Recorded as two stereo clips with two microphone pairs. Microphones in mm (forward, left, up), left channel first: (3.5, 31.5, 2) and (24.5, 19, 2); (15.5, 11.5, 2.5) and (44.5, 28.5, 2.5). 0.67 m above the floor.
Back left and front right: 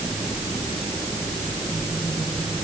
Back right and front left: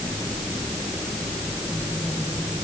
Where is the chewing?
I don't hear chewing.